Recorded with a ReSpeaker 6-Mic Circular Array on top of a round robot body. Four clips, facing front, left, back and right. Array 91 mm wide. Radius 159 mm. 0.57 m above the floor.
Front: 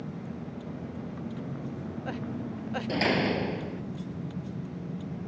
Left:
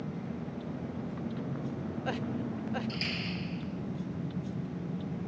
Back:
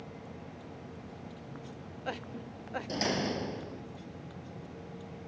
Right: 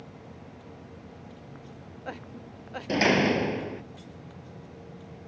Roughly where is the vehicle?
Ahead left.